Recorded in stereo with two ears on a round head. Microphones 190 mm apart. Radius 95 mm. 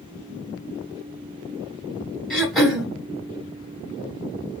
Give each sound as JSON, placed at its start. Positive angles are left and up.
{"t": 2.3, "sound": "throat clearing", "side_deg": 0, "distance_m": 1.5}